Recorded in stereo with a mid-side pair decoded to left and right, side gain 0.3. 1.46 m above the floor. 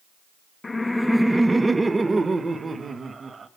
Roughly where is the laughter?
Ahead left.